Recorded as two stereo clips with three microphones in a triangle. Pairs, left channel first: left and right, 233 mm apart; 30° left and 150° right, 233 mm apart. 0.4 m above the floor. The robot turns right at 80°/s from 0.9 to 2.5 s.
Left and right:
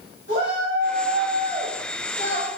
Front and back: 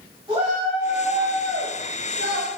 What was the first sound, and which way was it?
A shout, 85° right.